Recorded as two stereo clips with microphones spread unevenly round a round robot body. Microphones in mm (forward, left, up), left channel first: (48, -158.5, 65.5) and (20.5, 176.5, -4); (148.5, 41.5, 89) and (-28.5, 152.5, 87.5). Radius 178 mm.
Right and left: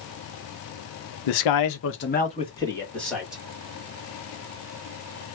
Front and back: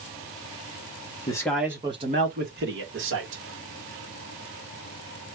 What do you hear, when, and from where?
1.3 s a man speaking: 105° right, 0.8 m; by 3.4 s straight behind, 1.9 m